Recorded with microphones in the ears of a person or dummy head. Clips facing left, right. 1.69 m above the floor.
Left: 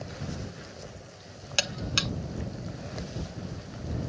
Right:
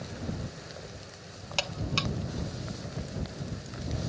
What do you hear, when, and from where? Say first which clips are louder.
1.6 s a buzzer: even; 20° left (ahead or behind)